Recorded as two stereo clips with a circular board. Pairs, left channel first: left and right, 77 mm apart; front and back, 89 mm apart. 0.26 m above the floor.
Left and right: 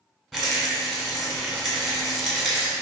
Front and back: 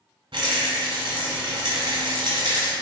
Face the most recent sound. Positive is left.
turn(degrees=175)